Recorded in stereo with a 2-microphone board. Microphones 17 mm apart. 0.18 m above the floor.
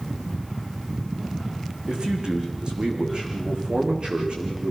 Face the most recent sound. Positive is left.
turn(degrees=-75)  # may be behind; listen again after turning